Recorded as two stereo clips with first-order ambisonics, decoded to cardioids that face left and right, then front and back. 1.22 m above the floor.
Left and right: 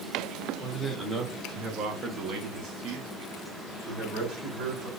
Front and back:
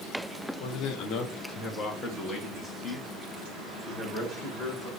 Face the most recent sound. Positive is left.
turn(degrees=-95)